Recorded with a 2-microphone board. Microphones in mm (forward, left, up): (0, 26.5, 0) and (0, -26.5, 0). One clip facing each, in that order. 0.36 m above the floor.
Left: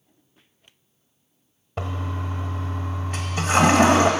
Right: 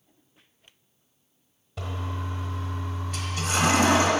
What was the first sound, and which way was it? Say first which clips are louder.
A toilet flushing: left 4 dB; 40° left (ahead or behind).